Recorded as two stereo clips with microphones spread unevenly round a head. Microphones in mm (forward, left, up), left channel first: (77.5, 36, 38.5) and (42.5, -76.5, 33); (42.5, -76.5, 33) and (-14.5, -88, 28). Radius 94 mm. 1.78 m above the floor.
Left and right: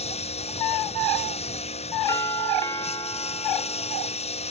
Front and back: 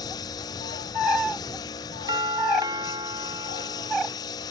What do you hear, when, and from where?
0.0 s a lawn mower: 40° left
2.1 s a doorbell: 145° left